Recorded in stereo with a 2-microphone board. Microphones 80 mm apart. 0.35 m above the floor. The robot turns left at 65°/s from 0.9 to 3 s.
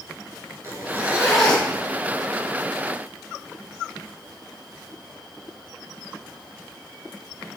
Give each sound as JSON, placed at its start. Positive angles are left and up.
{"t": 0.6, "sound": "a zipper", "azimuth_deg": -145, "distance_m": 3.5}